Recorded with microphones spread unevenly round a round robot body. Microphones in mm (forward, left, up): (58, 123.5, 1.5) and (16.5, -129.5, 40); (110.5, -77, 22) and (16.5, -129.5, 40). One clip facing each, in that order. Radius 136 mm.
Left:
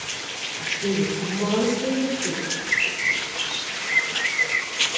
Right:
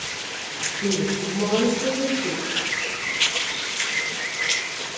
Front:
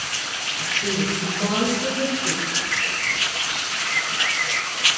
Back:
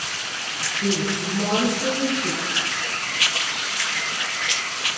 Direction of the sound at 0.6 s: 165° right.